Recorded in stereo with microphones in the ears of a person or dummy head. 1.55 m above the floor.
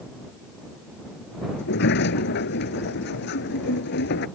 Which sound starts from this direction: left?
A sliding door, at 1.6 s.